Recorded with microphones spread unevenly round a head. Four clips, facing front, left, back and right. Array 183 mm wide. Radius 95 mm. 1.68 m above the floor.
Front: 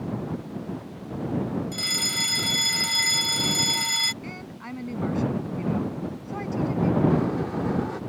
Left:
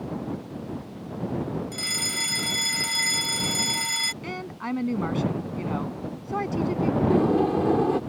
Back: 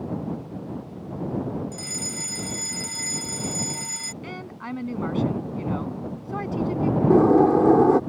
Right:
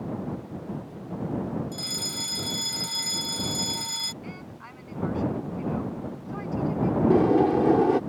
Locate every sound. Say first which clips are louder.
1.7 s a fire alarm: left 2 dB, front 2 dB; 35° left
4.2 s a woman speaking: left 8 dB, back 3 dB; 105° left
7.1 s a sliding door: right 3 dB, back 10 dB; 165° right